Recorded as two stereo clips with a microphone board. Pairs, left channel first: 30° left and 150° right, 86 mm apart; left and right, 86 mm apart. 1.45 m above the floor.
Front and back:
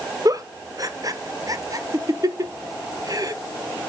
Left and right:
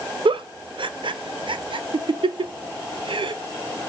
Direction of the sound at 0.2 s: 105° right.